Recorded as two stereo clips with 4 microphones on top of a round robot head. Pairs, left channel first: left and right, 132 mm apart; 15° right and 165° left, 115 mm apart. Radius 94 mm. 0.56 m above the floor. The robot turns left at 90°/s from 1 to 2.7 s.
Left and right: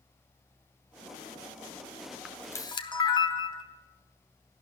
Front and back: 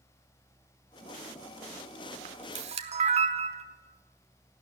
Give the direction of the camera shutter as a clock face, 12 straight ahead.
6 o'clock.